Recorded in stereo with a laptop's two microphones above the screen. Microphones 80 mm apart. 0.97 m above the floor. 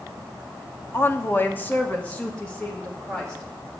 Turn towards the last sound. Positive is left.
turn(degrees=10)  # may be behind; listen again after turning